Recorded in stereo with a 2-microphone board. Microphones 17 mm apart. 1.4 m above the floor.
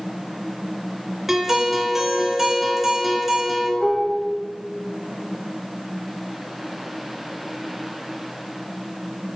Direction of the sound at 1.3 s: 15° right (ahead or behind).